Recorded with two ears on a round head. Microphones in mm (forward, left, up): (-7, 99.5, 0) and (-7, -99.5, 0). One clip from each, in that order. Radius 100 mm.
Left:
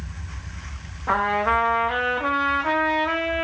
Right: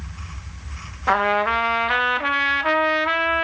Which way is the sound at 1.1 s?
65° right (ahead or behind).